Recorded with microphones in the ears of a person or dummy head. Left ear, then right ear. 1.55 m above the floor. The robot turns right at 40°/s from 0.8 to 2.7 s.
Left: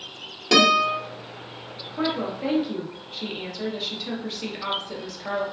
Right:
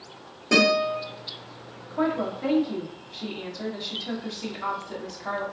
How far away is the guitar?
About 1.4 m.